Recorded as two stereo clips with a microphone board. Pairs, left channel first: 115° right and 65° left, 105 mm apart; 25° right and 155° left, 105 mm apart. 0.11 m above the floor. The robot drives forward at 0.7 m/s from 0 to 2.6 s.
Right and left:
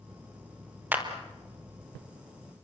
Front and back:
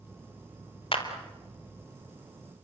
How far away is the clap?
About 2.5 m.